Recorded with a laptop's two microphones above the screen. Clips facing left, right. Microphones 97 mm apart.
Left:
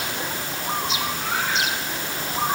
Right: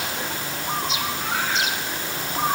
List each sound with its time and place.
Only background noise.